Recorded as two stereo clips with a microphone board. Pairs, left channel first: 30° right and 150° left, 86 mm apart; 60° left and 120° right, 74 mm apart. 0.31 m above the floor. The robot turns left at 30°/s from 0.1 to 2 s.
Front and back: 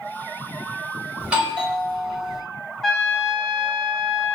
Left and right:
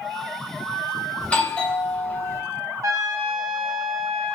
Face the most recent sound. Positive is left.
turn(degrees=-115)